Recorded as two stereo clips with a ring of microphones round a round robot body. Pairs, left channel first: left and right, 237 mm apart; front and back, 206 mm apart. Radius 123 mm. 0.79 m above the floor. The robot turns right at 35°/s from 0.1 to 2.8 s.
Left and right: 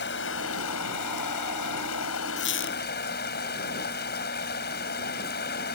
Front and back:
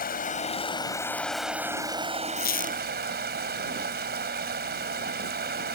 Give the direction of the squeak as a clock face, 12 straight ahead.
11 o'clock.